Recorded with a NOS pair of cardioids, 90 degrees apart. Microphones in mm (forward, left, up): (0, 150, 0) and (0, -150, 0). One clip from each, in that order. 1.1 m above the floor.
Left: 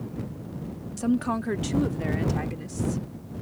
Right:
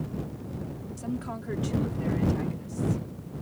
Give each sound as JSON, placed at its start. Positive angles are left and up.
{"t": 1.0, "sound": "a woman speaking", "azimuth_deg": 55}